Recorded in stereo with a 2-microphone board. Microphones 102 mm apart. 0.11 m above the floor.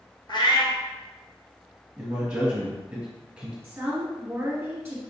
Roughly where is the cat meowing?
Left.